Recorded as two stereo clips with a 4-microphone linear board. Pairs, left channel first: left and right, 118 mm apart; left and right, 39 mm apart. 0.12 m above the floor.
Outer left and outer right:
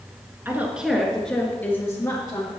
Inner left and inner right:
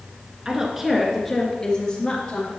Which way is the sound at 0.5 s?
20° right (ahead or behind).